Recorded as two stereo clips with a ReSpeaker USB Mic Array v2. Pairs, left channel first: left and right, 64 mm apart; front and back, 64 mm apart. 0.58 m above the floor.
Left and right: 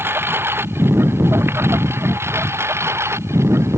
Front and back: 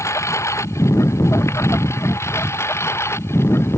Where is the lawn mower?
35° right; by 3.8 s 45° right.